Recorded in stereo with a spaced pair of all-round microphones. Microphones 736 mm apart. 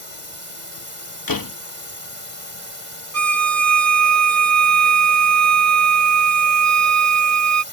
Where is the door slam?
30° left (ahead or behind).